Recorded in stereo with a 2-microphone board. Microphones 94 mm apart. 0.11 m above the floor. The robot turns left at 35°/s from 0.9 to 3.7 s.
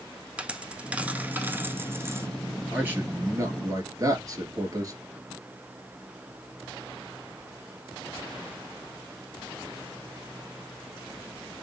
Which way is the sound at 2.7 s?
20° right.